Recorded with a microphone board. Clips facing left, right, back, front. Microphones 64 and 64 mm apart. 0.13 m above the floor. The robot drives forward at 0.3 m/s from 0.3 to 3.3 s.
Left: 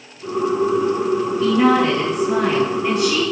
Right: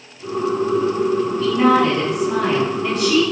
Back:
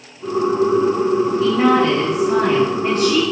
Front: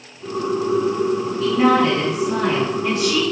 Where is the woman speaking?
160° left, 1.2 m; by 3.2 s 170° left, 1.5 m.